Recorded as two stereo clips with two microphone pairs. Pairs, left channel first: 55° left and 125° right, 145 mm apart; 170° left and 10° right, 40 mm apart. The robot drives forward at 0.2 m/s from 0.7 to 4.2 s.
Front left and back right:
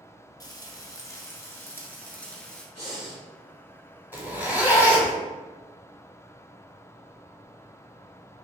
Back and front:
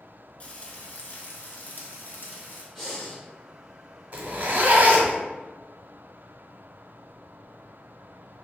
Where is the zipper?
50° right, 0.9 m.